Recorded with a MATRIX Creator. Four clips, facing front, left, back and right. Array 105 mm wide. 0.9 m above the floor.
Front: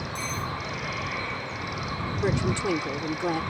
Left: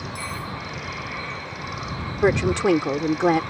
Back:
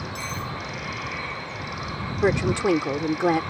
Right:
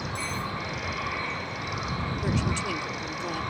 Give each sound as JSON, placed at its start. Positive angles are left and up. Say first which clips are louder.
{"t": 0.1, "sound": "cutlery clinking", "louder": "even, front 2 dB", "azimuth_deg": 145}
{"t": 2.2, "sound": "a woman speaking", "louder": "left 13 dB, back 6 dB", "azimuth_deg": 115}